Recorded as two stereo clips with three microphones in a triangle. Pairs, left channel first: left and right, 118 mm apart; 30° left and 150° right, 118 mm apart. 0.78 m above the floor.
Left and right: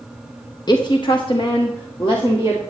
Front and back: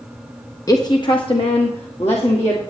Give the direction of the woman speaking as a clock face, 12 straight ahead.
10 o'clock.